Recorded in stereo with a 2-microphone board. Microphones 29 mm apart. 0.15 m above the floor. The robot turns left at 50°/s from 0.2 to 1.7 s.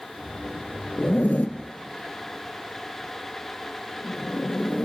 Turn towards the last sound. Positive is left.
turn(degrees=65)  # may be behind; listen again after turning